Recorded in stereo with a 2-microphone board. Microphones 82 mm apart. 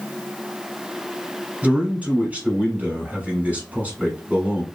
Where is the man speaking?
15° right (ahead or behind), 1.2 m.